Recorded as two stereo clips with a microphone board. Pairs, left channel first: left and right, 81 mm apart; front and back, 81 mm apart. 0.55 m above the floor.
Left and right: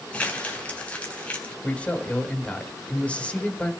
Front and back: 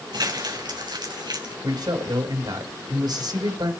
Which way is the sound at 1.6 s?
165° left.